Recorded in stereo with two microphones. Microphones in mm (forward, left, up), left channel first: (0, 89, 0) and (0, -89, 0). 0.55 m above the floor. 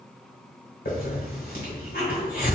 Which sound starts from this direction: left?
A hiss, at 0.8 s.